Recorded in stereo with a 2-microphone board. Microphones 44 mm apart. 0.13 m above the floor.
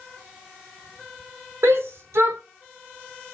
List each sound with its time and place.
1.6 s a shout: 75° right (ahead or behind), 5.5 m